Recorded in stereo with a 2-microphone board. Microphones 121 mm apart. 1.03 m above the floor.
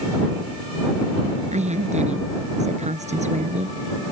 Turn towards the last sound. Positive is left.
turn(degrees=-70)  # may be behind; listen again after turning